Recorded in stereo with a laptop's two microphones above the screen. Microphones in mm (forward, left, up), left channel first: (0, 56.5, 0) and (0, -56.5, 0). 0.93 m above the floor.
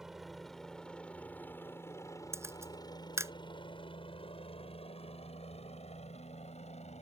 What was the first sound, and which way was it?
A helicopter, 5° right (ahead or behind).